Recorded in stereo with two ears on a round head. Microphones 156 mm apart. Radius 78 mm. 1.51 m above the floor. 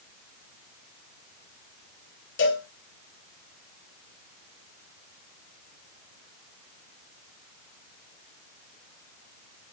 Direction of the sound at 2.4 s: 70° left (ahead or behind).